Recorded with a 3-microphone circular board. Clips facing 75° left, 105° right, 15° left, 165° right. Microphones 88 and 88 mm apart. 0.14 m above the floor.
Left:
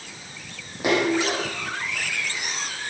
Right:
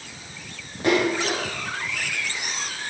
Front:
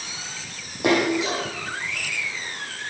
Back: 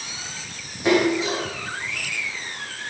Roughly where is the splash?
Ahead.